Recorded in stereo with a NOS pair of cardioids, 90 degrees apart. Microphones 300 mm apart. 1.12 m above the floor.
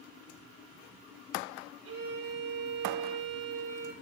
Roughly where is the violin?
Ahead right.